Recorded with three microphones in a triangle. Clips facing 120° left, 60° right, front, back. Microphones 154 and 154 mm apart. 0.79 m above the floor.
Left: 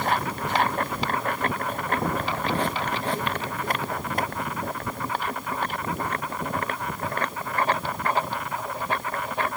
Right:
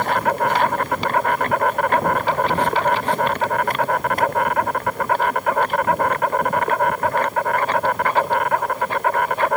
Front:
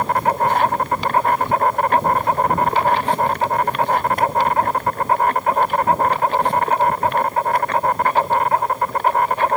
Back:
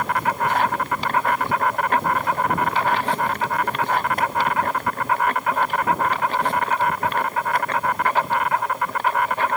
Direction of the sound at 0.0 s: 50° right.